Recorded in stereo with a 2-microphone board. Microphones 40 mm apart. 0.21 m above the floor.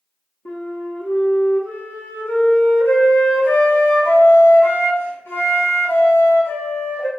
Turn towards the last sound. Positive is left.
turn(degrees=80)